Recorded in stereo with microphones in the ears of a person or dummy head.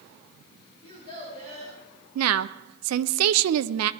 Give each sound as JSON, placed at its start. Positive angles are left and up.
{"t": 0.8, "sound": "a child speaking", "side_deg": 25, "distance_m": 7.5}
{"t": 2.1, "sound": "a woman speaking", "side_deg": -80, "distance_m": 0.7}